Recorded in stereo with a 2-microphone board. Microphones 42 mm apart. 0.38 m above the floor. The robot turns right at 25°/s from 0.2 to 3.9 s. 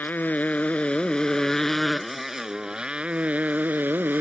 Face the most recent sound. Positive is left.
turn(degrees=-130)